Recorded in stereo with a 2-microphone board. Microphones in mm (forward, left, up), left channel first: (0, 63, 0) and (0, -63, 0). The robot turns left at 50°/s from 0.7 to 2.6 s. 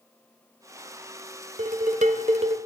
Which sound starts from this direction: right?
Dishes clattering, at 1.6 s.